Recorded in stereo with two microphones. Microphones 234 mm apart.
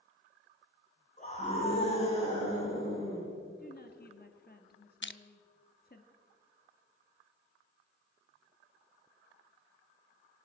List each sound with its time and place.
1.2 s a scream: 35° left (ahead or behind), 8 m; by 3.3 s 15° left (ahead or behind), 9.5 m
3.6 s a woman speaking: 40° left (ahead or behind), 1.3 m
5.0 s crushing: 50° left (ahead or behind), 0.5 m